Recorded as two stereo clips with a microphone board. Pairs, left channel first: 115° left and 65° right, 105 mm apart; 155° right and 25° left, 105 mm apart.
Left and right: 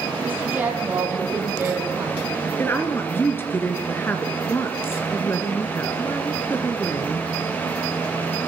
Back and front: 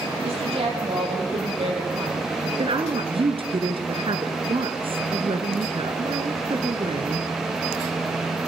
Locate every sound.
0.2 s a woman speaking: 5° left, 7.5 m; by 2.8 s 5° right, 6 m
2.6 s a woman speaking: 45° left, 2.5 m